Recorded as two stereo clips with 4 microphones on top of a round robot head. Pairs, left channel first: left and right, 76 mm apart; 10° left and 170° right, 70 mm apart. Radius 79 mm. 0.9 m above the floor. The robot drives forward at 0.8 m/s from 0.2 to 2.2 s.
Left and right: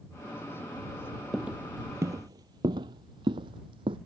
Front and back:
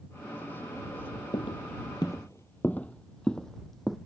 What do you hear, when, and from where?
1.3 s footsteps: 10° right; by 4.0 s 80° right